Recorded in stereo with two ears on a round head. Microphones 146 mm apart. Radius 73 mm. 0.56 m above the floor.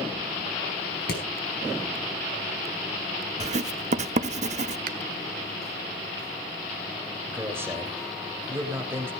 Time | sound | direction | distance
1.1 | hammering | 65° left (ahead or behind) | 5 m
3.4 | writing | 45° right (ahead or behind) | 0.7 m
4.9 | a finger snap | 60° right (ahead or behind) | 1.0 m
7.3 | a man speaking | 15° right (ahead or behind) | 3 m